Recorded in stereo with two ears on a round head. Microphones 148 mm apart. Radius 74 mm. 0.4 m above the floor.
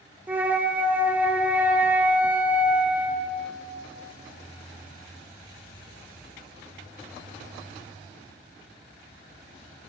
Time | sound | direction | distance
0.3 | a flute | 10° right (ahead or behind) | 0.6 m